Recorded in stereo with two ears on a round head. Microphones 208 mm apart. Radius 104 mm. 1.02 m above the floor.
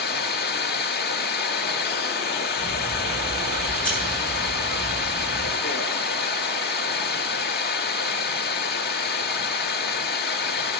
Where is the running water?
45° left (ahead or behind), 1.2 m.